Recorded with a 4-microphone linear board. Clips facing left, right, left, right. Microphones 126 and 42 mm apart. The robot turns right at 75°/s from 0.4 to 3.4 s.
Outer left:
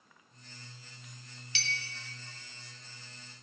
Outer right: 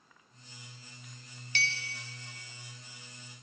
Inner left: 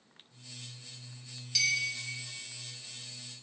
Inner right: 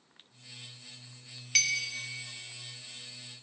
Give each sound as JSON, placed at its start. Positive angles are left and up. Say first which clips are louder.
{"t": 1.6, "sound": "a clink", "louder": "outer right 4 dB, inner right 1 dB", "side_deg": -50, "distance_m": 0.6}